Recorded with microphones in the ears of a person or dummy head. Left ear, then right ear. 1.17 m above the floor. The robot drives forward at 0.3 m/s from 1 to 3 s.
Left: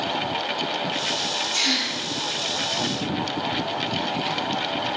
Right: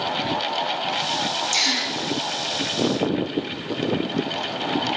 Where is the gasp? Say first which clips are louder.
Right 1 dB; 70° right (ahead or behind), 1.1 m; by 1.9 s 65° right (ahead or behind), 1.2 m.